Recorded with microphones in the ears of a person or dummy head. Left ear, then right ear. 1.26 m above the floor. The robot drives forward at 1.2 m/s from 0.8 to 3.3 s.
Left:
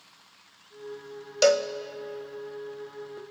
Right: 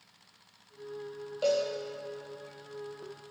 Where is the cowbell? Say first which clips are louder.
Left 7 dB; 65° left (ahead or behind), 0.5 m; by 1.7 s 45° left (ahead or behind), 0.7 m.